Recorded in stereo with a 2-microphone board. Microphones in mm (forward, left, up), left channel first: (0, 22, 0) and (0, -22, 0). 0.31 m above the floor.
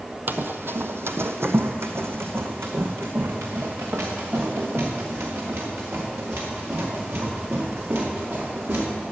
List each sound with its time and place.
0.3 s running footsteps: 50° right (ahead or behind), 0.7 m; by 8.9 s 60° right (ahead or behind), 5 m